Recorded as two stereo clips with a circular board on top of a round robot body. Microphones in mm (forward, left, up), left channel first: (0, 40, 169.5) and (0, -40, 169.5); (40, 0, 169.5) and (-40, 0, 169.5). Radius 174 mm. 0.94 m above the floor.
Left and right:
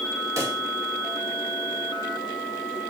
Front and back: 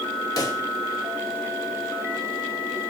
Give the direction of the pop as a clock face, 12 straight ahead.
1 o'clock.